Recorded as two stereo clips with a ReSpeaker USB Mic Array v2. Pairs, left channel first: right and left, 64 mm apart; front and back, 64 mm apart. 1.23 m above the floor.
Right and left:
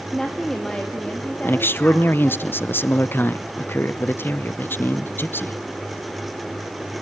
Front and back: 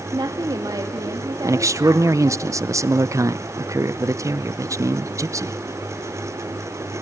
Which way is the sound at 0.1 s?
175° right.